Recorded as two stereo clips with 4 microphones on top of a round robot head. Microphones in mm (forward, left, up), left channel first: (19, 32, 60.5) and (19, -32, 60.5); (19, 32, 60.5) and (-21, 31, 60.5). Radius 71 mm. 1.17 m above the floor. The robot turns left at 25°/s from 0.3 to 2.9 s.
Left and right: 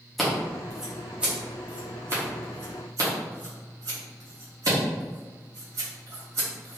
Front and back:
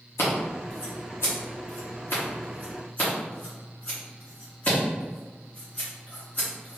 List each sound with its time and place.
0.2 s scissors: 5° left, 1.4 m; by 6.8 s 60° right, 1.4 m